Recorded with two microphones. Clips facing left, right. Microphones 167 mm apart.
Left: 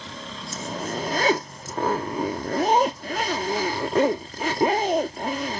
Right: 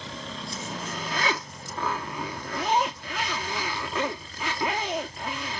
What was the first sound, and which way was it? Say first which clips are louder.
A zipper: left 8 dB; 40° left (ahead or behind).